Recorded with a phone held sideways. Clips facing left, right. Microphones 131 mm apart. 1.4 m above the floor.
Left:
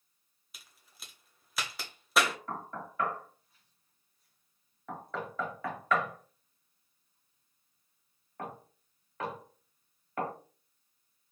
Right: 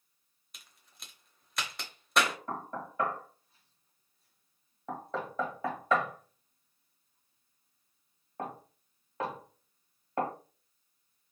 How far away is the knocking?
About 1.2 m.